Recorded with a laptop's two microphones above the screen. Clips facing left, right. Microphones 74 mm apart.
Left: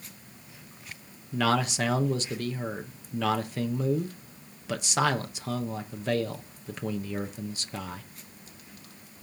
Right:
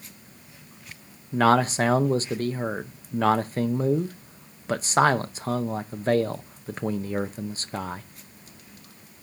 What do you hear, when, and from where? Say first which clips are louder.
1.3 s a man speaking: right 6 dB; 35° right (ahead or behind), 0.6 m